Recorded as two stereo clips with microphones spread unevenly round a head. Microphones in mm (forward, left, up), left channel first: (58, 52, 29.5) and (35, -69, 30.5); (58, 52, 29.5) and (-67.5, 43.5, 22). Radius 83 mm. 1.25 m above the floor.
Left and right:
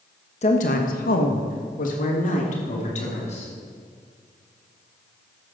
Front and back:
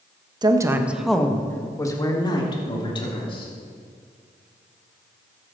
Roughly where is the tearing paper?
No tearing paper in this recording.